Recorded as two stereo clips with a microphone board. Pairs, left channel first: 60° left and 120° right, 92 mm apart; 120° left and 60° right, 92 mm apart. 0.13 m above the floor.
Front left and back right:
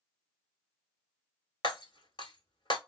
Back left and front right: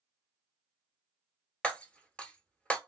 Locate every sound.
1.6 s breaking glass: 45° left, 0.8 m